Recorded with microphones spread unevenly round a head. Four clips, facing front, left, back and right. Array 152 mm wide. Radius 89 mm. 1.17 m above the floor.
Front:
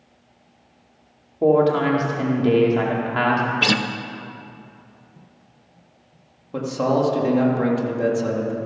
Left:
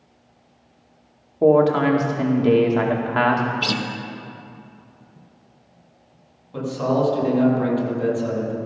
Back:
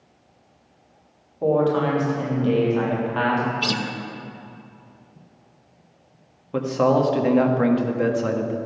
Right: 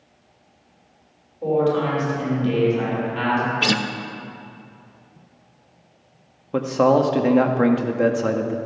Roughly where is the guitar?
Ahead right.